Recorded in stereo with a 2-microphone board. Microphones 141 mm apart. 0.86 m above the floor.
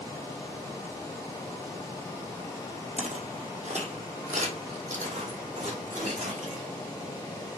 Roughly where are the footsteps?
Right.